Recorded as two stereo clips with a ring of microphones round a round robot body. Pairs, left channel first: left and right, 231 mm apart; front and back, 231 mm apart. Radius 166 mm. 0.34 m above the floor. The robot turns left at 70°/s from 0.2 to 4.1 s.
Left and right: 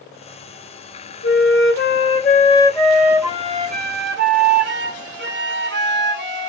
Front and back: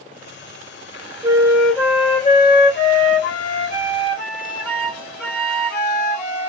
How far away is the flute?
About 1.1 m.